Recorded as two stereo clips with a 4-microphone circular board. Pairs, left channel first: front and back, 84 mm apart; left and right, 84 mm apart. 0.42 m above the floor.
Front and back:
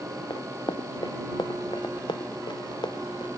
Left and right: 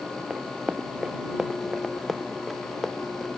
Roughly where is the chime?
I don't hear a chime.